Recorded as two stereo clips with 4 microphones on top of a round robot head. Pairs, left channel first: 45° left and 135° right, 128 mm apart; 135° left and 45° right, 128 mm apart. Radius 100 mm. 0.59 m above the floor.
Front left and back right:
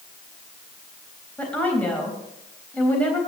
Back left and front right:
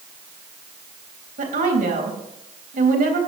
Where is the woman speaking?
35° right, 3.5 m.